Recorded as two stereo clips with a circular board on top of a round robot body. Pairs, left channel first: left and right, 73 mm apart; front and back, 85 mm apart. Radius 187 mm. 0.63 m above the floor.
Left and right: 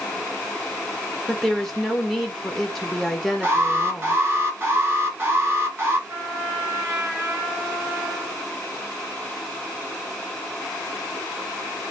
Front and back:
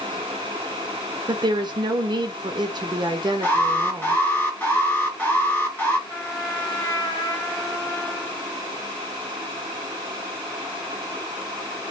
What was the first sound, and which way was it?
A woman speaking, 175° left.